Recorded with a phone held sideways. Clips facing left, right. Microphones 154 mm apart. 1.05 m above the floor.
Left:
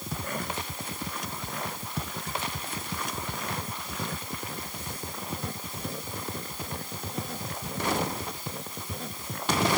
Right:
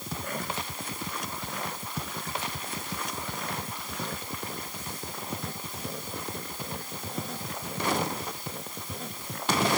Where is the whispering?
No whispering in this recording.